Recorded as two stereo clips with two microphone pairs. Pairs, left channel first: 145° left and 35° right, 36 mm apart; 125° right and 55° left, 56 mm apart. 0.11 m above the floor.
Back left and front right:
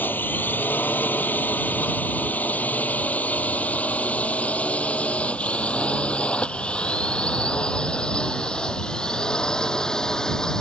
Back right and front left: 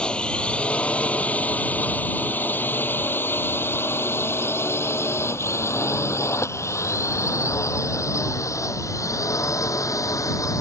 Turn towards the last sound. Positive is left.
turn(degrees=-140)